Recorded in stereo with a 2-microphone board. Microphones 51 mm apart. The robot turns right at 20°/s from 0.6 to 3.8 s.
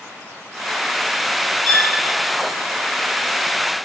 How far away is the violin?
About 5 m.